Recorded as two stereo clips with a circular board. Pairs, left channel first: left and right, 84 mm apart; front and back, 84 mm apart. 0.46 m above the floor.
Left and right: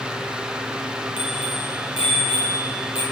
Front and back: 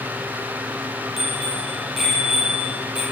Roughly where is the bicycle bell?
Left.